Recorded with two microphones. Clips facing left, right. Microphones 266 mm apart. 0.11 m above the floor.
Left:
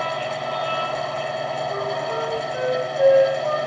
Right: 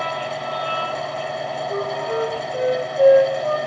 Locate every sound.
1.7 s a flute: 40° right (ahead or behind), 3 m